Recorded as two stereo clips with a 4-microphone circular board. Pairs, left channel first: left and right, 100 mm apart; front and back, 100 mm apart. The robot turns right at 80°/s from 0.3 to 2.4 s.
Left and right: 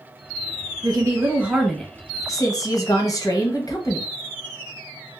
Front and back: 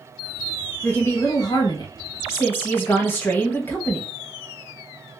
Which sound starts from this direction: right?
A woman speaking, at 0.8 s.